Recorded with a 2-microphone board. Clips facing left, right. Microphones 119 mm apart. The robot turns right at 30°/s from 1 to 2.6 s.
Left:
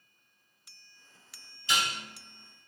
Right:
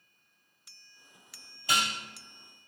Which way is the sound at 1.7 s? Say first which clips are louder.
Right 1 dB; 55° right (ahead or behind).